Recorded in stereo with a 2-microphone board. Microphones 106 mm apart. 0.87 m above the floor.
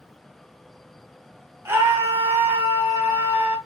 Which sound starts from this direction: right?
A scream, at 1.6 s.